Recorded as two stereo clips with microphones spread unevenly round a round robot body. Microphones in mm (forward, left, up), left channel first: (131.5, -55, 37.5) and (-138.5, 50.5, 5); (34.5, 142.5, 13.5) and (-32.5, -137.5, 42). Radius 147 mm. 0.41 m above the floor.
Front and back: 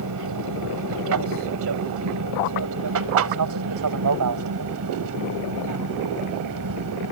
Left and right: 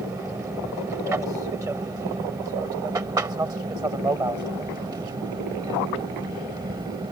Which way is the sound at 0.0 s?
175° left.